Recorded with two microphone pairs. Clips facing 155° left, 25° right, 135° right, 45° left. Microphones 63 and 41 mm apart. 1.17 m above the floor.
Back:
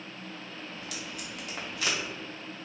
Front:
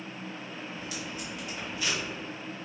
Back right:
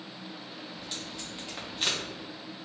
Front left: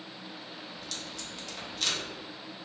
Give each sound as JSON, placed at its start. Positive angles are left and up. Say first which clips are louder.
{"t": 0.7, "sound": "tape being pulled", "louder": "front 2 dB, back right 1 dB", "azimuth_deg": 160, "distance_m": 1.2}